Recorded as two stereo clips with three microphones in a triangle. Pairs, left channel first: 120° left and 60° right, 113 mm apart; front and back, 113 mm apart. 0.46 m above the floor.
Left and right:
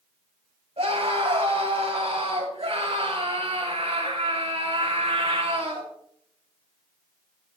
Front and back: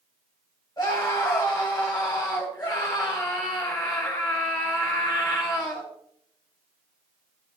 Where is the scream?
50° right, 2.5 m.